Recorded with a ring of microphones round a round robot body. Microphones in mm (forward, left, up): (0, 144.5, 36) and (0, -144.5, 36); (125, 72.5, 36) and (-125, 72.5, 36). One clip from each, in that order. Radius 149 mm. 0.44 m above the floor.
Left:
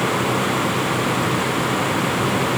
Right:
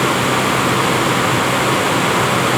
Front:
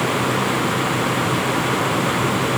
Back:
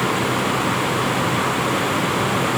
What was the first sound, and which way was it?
Only background noise.